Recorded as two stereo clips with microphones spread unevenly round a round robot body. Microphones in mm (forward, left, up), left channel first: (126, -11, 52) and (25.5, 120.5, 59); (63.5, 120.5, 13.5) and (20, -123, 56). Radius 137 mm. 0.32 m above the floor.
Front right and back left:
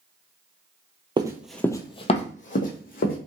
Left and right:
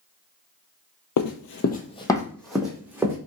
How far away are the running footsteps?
About 0.6 m.